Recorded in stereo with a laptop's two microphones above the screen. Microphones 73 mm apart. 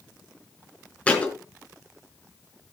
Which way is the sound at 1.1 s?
15° left (ahead or behind).